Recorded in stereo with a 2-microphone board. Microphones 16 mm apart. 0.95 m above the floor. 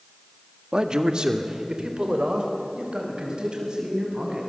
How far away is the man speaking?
About 1.4 m.